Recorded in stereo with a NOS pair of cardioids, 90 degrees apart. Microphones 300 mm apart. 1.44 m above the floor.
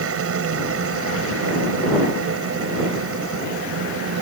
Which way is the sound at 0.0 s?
50° right.